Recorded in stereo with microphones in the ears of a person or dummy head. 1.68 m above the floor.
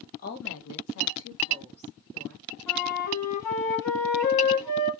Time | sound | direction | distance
0.2 | a woman speaking | 40° left (ahead or behind) | 0.9 m
2.7 | a flute | 20° left (ahead or behind) | 1.6 m